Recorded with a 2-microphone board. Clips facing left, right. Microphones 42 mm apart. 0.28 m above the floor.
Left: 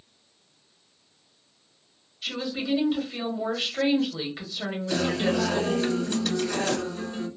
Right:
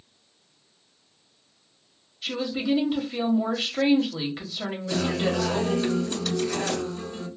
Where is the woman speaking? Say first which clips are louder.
Right 3 dB; 5° right (ahead or behind), 1.3 m.